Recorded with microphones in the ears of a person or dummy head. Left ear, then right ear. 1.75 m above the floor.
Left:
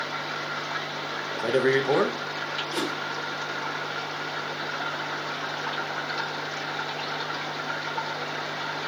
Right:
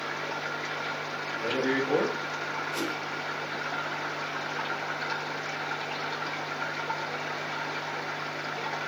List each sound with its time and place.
1.3 s a man speaking: 65° left (ahead or behind), 0.8 m
2.7 s a whoosh: 50° left (ahead or behind), 1.3 m